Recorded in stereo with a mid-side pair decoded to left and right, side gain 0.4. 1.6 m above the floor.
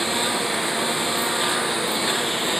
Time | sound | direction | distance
0.0 | a lawn mower | 15° right | ?